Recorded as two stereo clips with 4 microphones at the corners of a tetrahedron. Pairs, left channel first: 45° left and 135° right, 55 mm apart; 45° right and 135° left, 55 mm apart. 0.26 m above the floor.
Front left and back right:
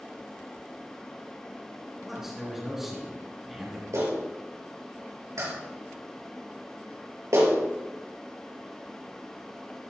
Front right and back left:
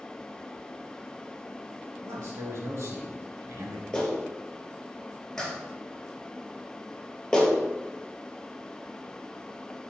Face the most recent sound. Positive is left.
turn(degrees=-130)